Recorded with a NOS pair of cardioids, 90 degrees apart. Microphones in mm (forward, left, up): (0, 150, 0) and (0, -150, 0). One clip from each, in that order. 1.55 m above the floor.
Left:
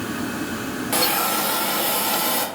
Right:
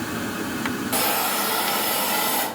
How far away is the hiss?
About 1.5 m.